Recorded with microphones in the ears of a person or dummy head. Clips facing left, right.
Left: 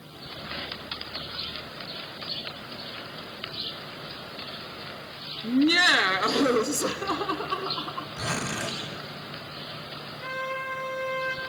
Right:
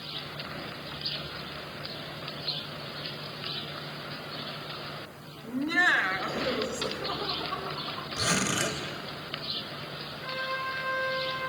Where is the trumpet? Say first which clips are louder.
Left 3 dB; 45° left (ahead or behind), 4.5 m.